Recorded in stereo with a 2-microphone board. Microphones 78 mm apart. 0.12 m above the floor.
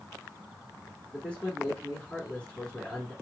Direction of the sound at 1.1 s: 15° left (ahead or behind).